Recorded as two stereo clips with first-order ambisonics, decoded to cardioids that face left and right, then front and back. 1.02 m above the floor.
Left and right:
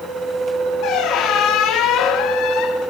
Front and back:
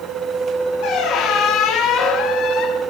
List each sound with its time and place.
0.8 s a squeak: 45° left, 1.3 m